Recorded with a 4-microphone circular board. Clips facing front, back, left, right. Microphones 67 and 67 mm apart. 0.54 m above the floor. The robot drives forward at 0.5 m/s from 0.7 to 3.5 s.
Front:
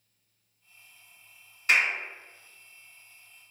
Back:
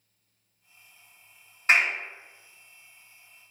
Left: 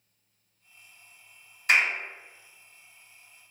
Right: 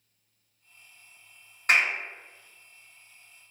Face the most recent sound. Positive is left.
turn(degrees=-145)